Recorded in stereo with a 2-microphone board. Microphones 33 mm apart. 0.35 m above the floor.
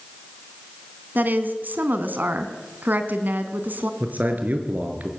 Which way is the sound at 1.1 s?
70° right (ahead or behind).